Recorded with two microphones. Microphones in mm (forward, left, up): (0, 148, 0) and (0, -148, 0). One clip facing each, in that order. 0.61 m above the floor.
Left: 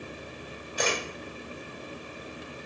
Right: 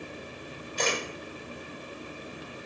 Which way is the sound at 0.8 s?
10° left (ahead or behind).